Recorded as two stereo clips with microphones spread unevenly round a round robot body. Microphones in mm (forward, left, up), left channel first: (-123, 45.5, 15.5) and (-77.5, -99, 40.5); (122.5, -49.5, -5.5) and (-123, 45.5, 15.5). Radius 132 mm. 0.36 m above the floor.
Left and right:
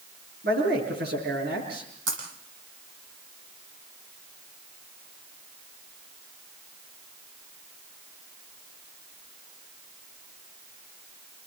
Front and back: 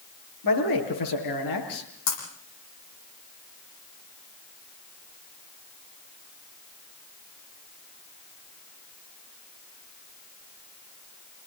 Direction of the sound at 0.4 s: 25° right.